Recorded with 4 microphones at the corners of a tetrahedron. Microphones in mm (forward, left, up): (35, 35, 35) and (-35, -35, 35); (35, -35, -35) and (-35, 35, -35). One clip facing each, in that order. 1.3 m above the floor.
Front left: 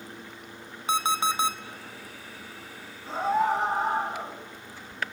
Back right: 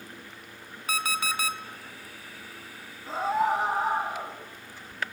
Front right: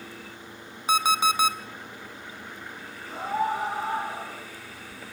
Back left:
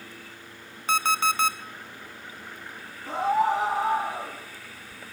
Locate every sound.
0.9 s an alarm clock: 20° left, 0.6 m
3.1 s a scream: 140° left, 2.5 m